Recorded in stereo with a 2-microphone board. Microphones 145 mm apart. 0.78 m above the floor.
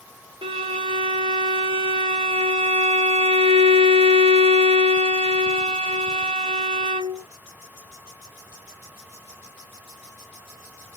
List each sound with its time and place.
0.4 s a violin: 35° right (ahead or behind), 0.7 m